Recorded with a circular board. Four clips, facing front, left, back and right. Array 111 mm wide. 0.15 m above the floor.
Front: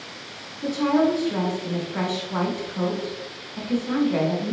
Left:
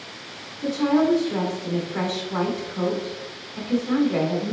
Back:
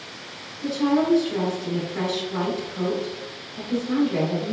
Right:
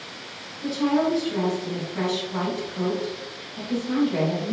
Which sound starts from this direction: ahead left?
A woman speaking, at 0.6 s.